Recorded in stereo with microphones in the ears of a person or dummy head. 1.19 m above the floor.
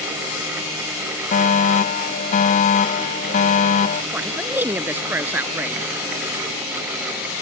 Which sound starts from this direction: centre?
A man speaking, at 4.1 s.